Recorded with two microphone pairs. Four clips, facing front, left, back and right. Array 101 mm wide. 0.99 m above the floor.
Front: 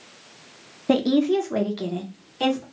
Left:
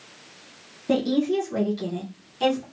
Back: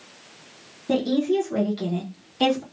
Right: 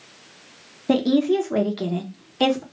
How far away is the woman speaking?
About 1.0 m.